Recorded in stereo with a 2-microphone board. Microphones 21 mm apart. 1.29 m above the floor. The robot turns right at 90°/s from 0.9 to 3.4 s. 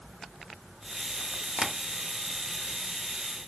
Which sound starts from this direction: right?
Tapping, at 1.6 s.